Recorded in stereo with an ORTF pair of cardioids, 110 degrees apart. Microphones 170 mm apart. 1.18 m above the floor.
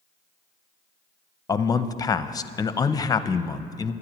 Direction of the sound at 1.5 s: 20° left.